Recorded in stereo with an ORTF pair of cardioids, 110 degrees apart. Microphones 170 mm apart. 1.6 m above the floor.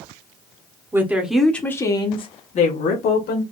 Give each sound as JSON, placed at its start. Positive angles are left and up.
{"t": 0.9, "sound": "a woman speaking", "azimuth_deg": -15, "distance_m": 1.1}